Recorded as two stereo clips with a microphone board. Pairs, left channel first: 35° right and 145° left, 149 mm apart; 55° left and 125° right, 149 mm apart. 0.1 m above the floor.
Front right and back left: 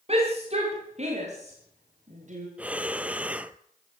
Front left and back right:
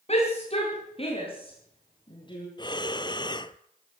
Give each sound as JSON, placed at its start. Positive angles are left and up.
{"t": 0.1, "sound": "a shout", "azimuth_deg": 100, "distance_m": 9.0}
{"t": 2.6, "sound": "breathing", "azimuth_deg": 75, "distance_m": 0.8}